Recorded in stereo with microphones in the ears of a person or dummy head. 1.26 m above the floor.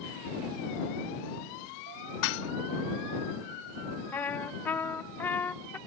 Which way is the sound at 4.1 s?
10° left (ahead or behind).